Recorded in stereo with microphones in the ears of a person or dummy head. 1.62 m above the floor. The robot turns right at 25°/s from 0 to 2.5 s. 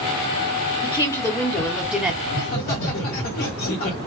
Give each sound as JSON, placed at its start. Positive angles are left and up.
{"t": 0.8, "sound": "a woman speaking", "azimuth_deg": 155, "distance_m": 0.9}
{"t": 2.2, "sound": "laughter", "side_deg": 70, "distance_m": 1.6}